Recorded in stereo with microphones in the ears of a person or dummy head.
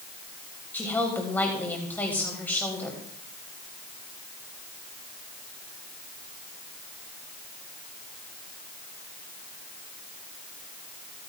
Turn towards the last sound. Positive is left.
turn(degrees=10)  # may be behind; listen again after turning